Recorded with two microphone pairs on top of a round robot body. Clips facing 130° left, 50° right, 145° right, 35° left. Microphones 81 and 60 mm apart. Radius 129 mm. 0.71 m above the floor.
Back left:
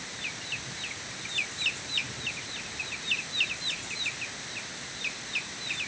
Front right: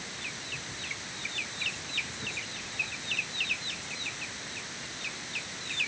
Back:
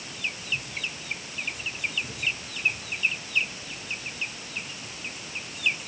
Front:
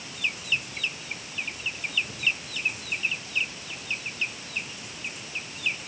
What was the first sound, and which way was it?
Only background noise.